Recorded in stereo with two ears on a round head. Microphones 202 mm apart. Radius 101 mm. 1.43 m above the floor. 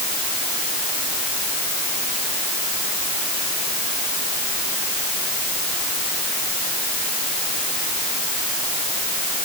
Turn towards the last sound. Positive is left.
No sound to turn to.